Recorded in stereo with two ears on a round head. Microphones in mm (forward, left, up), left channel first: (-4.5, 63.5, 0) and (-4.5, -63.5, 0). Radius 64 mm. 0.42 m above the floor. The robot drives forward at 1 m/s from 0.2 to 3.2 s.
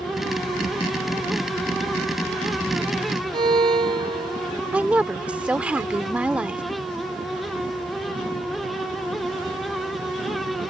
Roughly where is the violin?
Right.